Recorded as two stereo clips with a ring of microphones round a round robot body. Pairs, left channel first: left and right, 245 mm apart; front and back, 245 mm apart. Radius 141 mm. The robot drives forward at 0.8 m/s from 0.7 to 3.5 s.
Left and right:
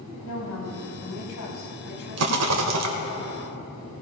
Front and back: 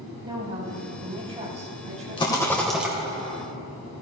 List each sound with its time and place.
0.2 s a woman speaking: 110° left, 5 m; by 2.9 s 125° left, 6 m
2.2 s a rattle: 70° right, 1.4 m; by 2.9 s 95° right, 1.4 m